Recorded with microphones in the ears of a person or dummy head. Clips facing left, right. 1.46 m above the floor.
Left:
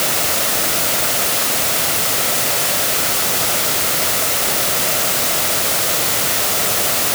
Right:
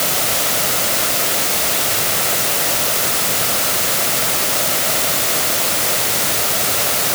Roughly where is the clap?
No clap in this recording.